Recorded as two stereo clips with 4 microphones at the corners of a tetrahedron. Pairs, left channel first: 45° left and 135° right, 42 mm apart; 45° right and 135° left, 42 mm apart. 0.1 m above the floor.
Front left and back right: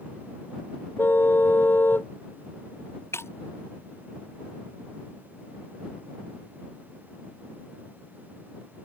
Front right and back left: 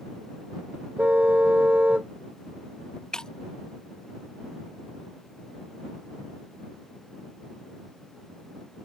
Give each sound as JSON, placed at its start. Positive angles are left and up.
{"t": 1.0, "sound": "a car horn", "azimuth_deg": 75}
{"t": 3.1, "sound": "breaking glass", "azimuth_deg": 25}